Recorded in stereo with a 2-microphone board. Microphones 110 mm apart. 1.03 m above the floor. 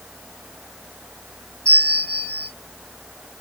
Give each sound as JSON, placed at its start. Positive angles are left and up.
{"t": 1.6, "sound": "a bell", "side_deg": 10, "distance_m": 2.0}